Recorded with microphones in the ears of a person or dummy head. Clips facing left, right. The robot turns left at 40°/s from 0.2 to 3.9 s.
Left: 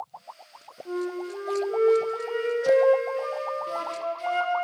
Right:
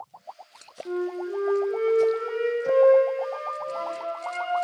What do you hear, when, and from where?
0.8 s a flute: 155° right, 1.1 m; by 4.5 s 85° left, 1.1 m